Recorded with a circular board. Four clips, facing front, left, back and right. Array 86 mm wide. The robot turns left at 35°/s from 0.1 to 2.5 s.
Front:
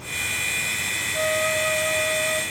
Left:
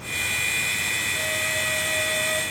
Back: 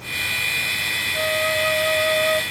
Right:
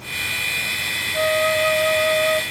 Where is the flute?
90° right, 0.7 m; by 2.4 s 135° right, 0.7 m.